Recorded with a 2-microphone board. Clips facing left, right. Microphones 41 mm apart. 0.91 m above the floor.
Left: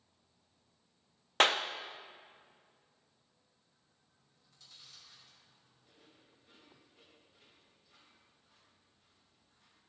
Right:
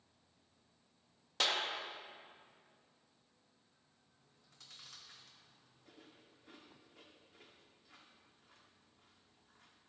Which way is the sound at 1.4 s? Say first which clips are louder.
Left 7 dB; 50° left (ahead or behind).